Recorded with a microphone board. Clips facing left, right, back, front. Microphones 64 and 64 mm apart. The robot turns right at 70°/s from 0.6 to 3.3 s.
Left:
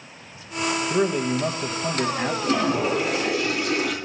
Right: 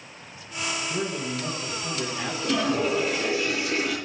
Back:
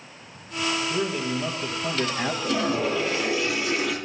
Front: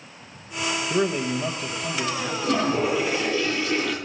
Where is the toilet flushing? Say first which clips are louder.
Left 1 dB, front 4 dB; 40° left, 2.5 m; by 4.0 s 100° left, 2.5 m.